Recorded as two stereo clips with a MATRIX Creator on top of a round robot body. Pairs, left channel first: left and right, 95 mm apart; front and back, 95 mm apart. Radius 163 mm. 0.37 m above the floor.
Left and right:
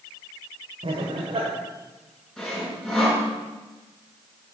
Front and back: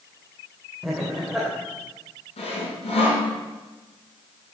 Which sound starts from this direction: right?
Laughter, at 0.8 s.